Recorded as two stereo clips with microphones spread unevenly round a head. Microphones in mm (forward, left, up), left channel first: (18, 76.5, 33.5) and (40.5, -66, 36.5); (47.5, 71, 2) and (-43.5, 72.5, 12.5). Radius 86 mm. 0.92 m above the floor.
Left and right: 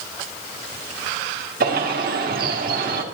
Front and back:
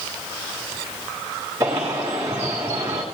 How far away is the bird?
About 1.5 m.